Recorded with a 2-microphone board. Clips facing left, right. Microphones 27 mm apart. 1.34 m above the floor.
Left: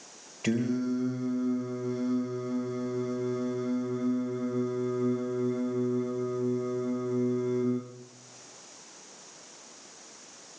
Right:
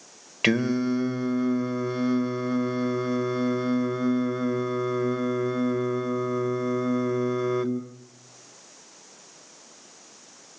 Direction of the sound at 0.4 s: 70° right (ahead or behind).